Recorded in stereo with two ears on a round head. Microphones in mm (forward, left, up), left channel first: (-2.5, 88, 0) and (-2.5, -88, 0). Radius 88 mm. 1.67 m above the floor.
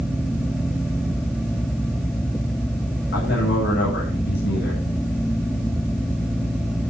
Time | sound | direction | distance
3.1 | a man speaking | 55° left (ahead or behind) | 8 m